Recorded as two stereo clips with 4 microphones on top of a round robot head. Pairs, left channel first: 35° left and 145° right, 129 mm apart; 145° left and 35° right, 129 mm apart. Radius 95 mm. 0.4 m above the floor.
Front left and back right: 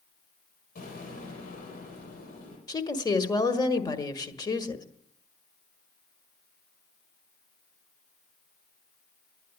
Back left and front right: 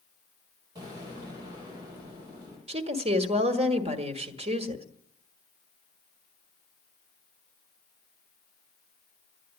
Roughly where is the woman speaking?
Ahead.